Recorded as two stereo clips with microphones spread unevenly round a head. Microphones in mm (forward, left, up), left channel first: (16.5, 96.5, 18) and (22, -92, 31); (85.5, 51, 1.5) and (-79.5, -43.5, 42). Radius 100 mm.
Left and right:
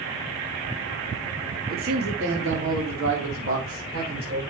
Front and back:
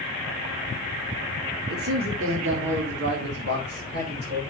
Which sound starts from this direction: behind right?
A man speaking, at 1.7 s.